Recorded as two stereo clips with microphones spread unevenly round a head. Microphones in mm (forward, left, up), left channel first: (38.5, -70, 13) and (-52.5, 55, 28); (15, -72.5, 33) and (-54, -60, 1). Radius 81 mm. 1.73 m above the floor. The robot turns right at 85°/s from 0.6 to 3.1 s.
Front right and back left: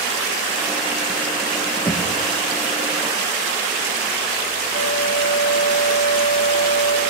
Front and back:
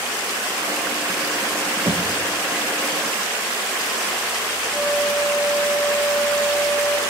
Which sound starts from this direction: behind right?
Knocking, at 1.9 s.